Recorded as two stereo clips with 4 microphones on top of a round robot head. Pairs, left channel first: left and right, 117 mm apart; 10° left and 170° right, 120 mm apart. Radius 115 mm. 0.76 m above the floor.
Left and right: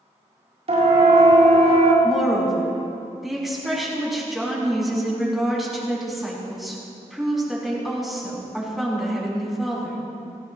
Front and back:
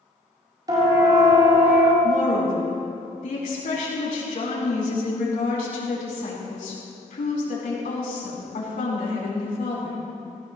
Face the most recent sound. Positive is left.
turn(degrees=0)